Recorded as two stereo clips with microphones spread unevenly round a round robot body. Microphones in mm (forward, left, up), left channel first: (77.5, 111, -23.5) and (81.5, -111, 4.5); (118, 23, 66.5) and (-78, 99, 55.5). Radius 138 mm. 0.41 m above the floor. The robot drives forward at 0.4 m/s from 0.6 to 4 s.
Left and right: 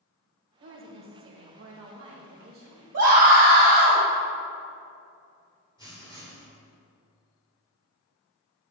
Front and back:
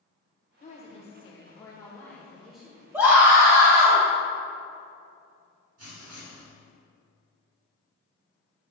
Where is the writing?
165° left, 1.9 m.